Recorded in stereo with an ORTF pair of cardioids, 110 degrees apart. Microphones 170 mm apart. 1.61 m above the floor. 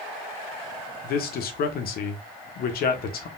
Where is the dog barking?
No dog barking in this recording.